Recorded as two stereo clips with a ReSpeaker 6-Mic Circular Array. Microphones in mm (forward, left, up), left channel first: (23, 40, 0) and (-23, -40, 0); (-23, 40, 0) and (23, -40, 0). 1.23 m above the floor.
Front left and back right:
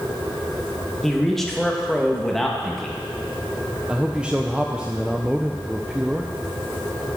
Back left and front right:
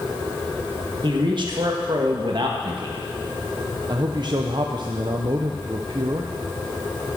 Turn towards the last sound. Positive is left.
turn(degrees=-45)